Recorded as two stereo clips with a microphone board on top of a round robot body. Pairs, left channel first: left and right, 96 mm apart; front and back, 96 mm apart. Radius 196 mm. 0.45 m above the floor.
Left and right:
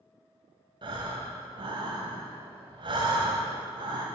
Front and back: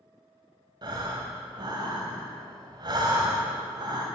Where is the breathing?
130° right, 0.8 m.